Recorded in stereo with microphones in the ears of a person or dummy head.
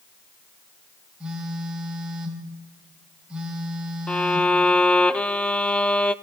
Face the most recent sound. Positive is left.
turn(degrees=5)  # may be behind; listen again after turning